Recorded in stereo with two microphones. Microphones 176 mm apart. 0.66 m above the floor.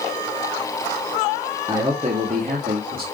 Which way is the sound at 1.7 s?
20° right (ahead or behind).